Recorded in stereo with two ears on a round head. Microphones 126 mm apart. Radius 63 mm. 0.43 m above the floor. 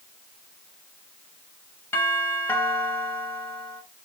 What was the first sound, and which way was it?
A doorbell, 15° left (ahead or behind).